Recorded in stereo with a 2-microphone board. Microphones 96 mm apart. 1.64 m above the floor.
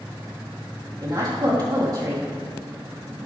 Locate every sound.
1.0 s a woman speaking: 45° right (ahead or behind), 3.5 m